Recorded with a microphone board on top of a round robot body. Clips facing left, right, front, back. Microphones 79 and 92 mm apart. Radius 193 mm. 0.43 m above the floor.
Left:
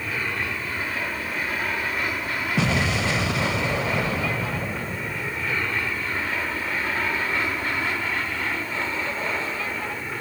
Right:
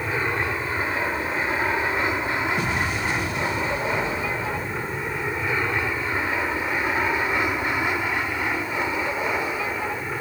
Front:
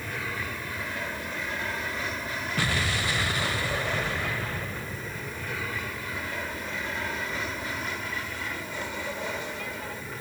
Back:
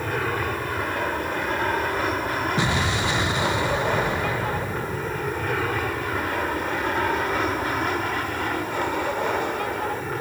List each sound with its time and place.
0.0 s an aircraft: 150° right; by 10.2 s 165° right
2.6 s an explosion: 110° left